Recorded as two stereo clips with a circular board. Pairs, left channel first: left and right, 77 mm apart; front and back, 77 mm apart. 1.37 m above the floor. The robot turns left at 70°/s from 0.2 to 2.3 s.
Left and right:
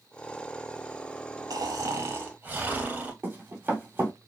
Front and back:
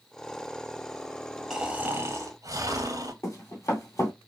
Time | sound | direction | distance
1.5 | snoring | 100° right | 0.9 m
3.2 | running footsteps | 35° right | 2 m